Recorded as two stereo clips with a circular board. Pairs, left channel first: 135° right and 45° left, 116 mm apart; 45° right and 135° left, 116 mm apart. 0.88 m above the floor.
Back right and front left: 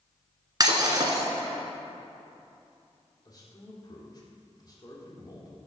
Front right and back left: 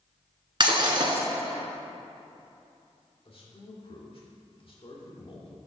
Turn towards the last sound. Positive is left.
turn(degrees=-80)